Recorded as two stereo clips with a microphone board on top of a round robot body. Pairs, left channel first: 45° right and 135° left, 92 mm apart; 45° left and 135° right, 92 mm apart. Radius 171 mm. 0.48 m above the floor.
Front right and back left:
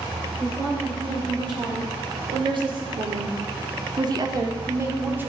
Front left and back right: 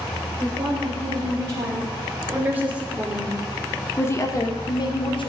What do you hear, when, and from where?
0.4 s a woman speaking: straight behind, 3.5 m; by 5.3 s 65° left, 2 m